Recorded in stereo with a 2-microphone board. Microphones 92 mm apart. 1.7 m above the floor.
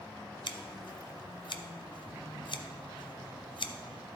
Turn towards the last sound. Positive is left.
turn(degrees=60)  # may be behind; listen again after turning